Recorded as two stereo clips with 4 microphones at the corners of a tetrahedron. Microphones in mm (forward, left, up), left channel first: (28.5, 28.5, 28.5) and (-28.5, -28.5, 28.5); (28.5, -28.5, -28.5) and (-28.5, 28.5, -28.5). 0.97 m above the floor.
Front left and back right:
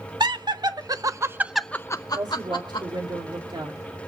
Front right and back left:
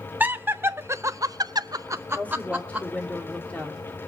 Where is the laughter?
155° right, 1.5 m; by 2.9 s 60° left, 1.3 m.